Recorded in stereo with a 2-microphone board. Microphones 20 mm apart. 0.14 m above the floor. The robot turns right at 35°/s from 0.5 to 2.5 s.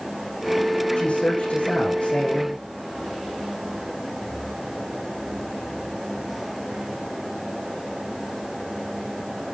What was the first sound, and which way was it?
A woman speaking, 75° left.